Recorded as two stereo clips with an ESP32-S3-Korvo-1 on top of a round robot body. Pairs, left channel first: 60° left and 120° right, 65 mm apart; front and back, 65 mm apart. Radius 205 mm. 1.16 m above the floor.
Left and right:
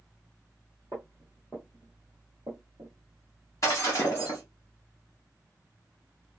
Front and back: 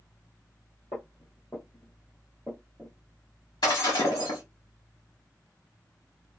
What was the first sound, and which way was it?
Footsteps, 15° left.